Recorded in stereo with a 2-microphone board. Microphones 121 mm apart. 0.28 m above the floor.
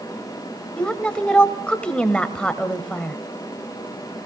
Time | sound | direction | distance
0.8 | a woman speaking | 10° left (ahead or behind) | 1.1 m